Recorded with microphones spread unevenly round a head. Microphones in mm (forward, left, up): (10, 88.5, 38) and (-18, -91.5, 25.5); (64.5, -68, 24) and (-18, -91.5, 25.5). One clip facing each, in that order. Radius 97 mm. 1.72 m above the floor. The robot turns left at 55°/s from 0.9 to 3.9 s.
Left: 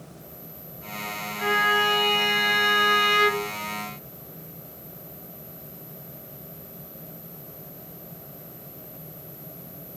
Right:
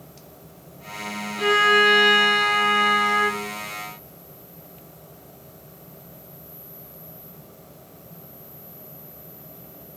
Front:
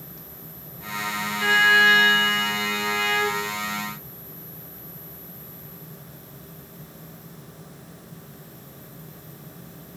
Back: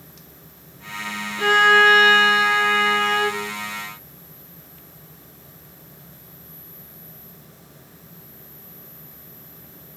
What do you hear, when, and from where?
1.4 s a violin: 140° right, 1.1 m; by 3.5 s 100° left, 1.1 m